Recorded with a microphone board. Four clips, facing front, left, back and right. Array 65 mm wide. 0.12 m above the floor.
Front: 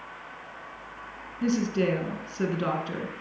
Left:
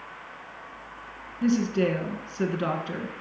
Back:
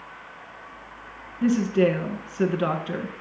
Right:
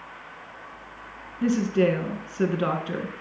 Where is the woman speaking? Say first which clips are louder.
Right 2 dB, back 5 dB; 150° right, 1.2 m.